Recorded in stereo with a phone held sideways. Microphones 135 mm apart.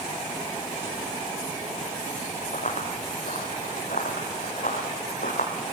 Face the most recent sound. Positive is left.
turn(degrees=70)  # may be behind; listen again after turning